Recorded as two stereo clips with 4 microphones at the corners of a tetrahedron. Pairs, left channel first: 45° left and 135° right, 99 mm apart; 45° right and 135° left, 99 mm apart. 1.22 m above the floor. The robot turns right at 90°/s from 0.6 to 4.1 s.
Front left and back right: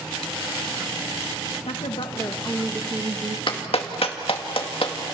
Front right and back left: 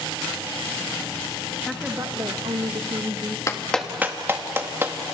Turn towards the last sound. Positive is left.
turn(degrees=70)